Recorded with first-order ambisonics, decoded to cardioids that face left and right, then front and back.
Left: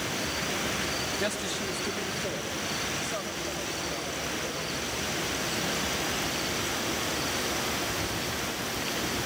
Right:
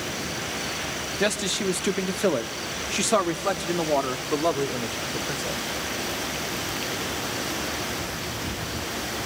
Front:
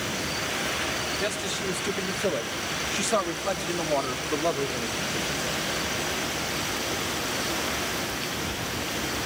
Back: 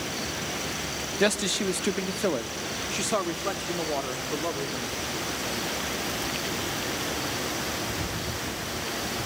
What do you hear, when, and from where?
1.2 s a man speaking: 150° right, 1.0 m; by 5.6 s 80° right, 2.5 m